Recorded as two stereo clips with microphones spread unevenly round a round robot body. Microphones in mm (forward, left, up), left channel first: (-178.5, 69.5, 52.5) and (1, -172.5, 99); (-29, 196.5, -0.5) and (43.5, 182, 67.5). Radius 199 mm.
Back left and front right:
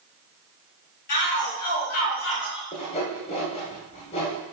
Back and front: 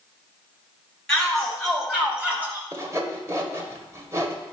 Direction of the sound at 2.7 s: 55° left.